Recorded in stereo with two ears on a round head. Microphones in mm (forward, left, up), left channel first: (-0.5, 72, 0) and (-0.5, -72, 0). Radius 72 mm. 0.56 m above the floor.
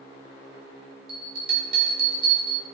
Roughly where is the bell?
Right.